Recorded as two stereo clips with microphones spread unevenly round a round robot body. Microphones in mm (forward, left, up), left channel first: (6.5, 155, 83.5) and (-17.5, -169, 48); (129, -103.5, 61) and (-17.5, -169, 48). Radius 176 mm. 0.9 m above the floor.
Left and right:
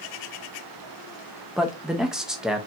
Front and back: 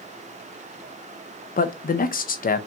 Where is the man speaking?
10° right, 0.7 m.